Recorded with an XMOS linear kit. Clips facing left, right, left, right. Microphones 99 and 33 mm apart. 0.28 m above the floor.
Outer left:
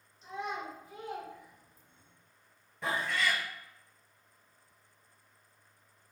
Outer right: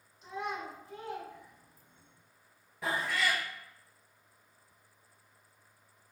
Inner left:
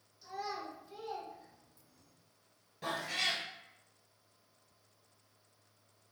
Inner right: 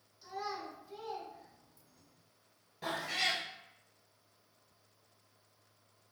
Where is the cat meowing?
5° right (ahead or behind), 0.7 m.